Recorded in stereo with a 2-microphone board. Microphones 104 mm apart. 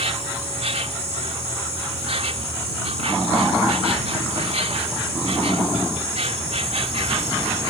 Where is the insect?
85° right.